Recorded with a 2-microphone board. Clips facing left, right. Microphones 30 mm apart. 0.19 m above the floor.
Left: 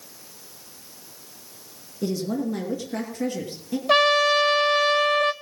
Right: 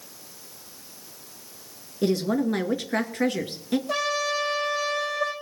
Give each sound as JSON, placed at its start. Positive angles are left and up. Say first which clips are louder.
{"t": 2.0, "sound": "a woman speaking", "louder": "right 3 dB", "side_deg": -65, "distance_m": 2.5}
{"t": 3.9, "sound": "a trumpet", "louder": "left 12 dB", "side_deg": 70, "distance_m": 1.5}